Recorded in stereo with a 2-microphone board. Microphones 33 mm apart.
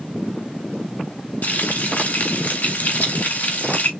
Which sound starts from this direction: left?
Frying, at 1.4 s.